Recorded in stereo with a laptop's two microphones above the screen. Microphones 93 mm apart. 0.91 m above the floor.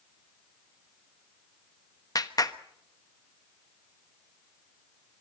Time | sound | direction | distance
2.1 | a clap | 40° left (ahead or behind) | 1.0 m